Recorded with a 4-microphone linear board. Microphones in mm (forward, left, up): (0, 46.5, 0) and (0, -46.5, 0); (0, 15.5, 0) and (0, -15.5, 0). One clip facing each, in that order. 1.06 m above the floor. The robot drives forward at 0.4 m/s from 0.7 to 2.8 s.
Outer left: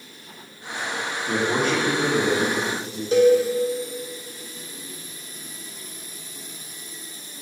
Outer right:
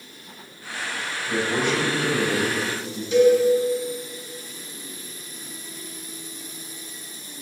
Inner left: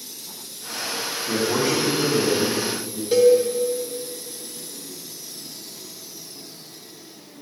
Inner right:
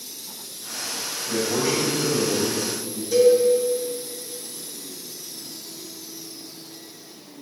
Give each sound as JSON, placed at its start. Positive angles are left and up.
{"t": 1.3, "sound": "a man speaking", "side_deg": 50, "distance_m": 2.5}
{"t": 3.1, "sound": "a cowbell", "side_deg": 40, "distance_m": 1.6}